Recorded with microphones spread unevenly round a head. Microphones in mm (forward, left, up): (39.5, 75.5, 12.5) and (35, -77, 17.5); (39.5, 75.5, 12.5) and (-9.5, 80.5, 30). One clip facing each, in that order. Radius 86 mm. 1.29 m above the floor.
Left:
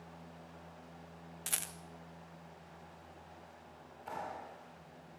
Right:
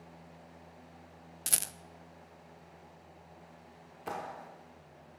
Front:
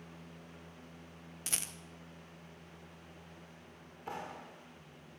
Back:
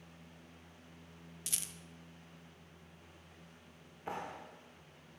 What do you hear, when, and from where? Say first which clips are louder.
1.5 s a rattle: right 5 dB, front 5 dB; 45° right, 0.7 m
4.1 s a clap: right 3 dB, back 1 dB; 105° right, 2.5 m